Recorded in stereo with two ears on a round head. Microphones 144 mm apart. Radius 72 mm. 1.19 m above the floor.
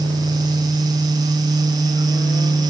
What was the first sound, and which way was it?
Only background noise.